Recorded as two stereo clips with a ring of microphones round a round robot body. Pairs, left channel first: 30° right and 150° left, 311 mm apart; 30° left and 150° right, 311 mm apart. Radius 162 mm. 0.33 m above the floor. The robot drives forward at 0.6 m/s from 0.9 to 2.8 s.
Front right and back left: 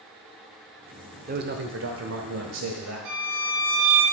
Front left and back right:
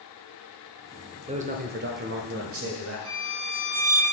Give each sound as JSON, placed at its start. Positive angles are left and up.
{"t": 1.3, "sound": "a man speaking", "azimuth_deg": 160, "distance_m": 0.9}
{"t": 3.0, "sound": "a violin", "azimuth_deg": 180, "distance_m": 2.0}